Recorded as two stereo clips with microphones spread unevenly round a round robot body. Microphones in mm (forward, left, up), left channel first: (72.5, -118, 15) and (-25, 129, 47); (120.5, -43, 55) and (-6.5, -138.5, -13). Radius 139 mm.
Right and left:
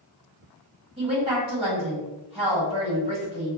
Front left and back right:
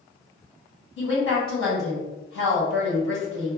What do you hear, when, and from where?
1.0 s a woman speaking: 40° left, 1.7 m